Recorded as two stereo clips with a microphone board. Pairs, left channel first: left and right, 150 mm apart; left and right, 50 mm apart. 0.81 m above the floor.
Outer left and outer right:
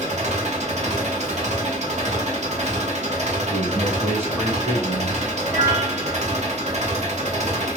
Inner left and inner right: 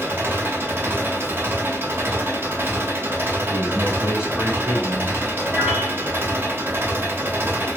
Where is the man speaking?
15° right (ahead or behind), 1.6 m.